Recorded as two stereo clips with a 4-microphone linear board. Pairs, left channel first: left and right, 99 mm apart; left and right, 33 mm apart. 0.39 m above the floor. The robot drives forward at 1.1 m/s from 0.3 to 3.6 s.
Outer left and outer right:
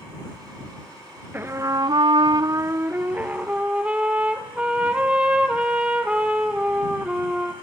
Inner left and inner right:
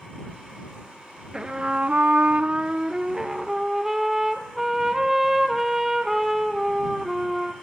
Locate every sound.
1.3 s a trumpet: 20° right (ahead or behind), 1.0 m; by 7.5 s 15° right (ahead or behind), 1.7 m